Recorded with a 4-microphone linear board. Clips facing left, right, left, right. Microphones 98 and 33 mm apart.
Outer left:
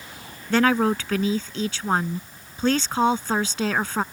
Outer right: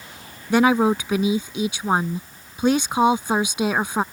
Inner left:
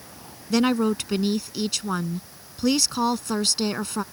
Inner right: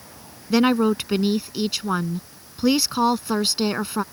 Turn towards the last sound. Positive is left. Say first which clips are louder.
# outer right 3 dB, inner right 3 dB
turn(degrees=-15)  # may be behind; listen again after turning